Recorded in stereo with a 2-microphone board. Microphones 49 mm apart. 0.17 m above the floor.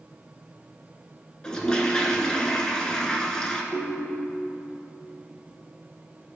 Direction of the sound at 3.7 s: 10° left (ahead or behind).